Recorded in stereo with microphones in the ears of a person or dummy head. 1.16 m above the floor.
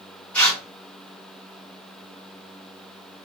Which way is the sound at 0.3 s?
10° left (ahead or behind).